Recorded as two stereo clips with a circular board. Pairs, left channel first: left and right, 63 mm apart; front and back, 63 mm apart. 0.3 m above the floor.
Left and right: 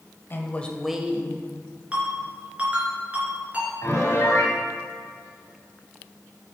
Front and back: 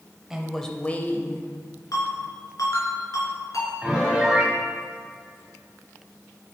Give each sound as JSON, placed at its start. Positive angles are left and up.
{"t": 0.3, "sound": "a woman speaking", "azimuth_deg": 105, "distance_m": 1.1}
{"t": 1.9, "sound": "a ringtone", "azimuth_deg": -20, "distance_m": 3.5}
{"t": 3.8, "sound": "a piano", "azimuth_deg": 105, "distance_m": 2.5}